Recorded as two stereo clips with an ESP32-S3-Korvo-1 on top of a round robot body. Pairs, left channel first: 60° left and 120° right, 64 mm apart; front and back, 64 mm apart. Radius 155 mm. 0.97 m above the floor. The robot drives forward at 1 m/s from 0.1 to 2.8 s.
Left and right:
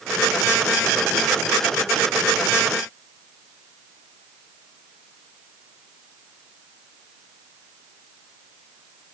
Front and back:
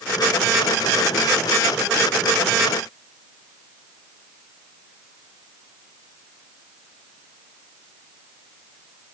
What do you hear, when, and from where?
Only background noise.